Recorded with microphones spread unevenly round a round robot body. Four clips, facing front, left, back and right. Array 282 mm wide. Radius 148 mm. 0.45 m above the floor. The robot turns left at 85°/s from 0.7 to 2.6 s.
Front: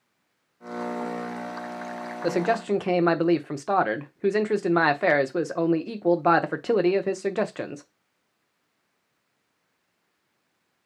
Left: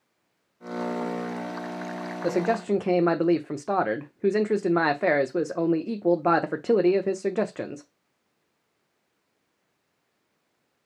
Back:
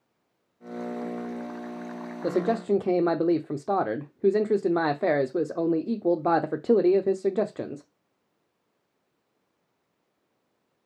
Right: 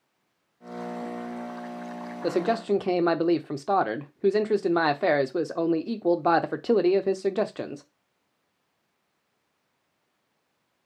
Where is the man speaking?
120° right, 0.7 m; by 7.9 s 155° right, 0.7 m.